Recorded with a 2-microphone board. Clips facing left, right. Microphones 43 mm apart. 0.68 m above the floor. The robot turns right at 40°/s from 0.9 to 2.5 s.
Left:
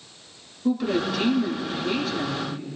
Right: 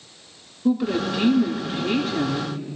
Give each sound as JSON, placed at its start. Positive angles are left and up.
{"t": 0.7, "sound": "a woman speaking", "azimuth_deg": -170, "distance_m": 1.6}